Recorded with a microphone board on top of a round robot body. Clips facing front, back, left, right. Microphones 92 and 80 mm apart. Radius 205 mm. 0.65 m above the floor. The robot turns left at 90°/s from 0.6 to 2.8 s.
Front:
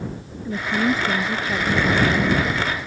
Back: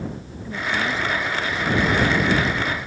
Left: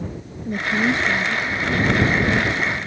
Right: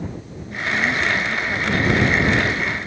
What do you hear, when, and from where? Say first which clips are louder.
0.5 s a woman speaking: front 3 dB, left 2 dB; 70° left; by 2.4 s 95° right